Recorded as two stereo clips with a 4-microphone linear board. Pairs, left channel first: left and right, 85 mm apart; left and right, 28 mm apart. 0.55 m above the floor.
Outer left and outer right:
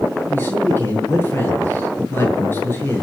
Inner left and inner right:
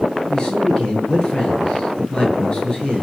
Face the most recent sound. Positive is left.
turn(degrees=25)  # may be behind; listen again after turning